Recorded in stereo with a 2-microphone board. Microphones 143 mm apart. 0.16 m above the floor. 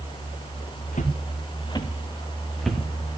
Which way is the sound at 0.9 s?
65° left (ahead or behind).